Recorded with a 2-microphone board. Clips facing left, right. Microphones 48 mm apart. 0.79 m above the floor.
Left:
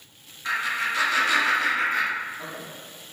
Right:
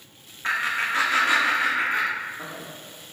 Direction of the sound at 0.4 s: 45° right (ahead or behind).